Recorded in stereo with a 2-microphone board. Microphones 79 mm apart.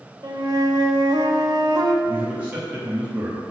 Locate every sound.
0.2 s a flute: 55° right (ahead or behind), 0.9 m
2.0 s a man speaking: 20° right (ahead or behind), 1.3 m